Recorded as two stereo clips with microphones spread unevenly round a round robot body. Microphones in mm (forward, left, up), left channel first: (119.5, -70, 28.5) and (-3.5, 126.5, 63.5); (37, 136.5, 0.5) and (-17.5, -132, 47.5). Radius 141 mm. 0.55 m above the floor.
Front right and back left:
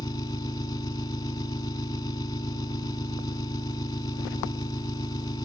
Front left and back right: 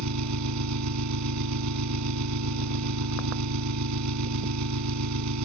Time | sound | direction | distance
0.0 | an engine running | 135° right | ?